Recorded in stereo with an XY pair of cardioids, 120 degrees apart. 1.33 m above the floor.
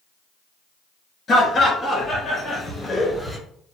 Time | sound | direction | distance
1.3 | laughter | 40° left | 1.8 m